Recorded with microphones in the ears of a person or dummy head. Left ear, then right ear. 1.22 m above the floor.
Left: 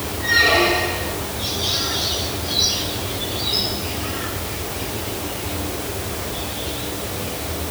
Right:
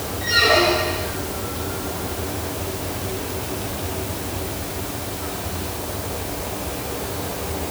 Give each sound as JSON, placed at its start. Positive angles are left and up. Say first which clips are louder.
{"t": 0.2, "sound": "a squeak", "louder": "left 1 dB", "side_deg": -50, "distance_m": 5.0}